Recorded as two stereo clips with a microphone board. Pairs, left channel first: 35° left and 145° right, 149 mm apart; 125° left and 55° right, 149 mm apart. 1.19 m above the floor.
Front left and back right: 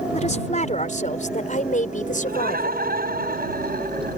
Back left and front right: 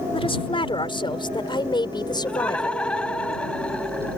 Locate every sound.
0.1 s a woman speaking: 75° left; by 2.8 s 60° left
2.2 s laughter: 150° right